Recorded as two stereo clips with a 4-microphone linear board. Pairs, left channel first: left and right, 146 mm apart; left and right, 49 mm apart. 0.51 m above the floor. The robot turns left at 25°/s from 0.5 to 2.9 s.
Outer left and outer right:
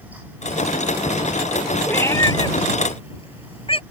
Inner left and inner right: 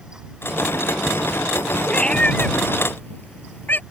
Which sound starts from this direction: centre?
A cat meowing, at 1.9 s.